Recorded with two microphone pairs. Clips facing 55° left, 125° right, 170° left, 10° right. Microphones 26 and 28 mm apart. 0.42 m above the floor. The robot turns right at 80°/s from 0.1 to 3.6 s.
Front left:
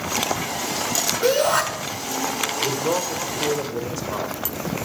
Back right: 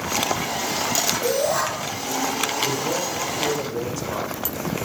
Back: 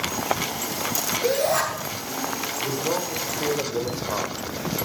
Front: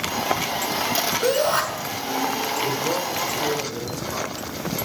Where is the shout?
15° left, 6 m; by 1.6 s 45° left, 6 m.